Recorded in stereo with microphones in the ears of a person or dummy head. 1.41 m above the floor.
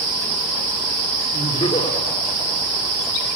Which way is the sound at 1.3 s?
35° left (ahead or behind).